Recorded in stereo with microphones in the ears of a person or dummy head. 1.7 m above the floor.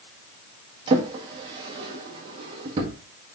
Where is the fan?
I don't hear a fan.